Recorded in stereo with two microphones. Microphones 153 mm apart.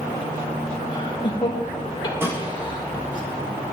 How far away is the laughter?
About 5 m.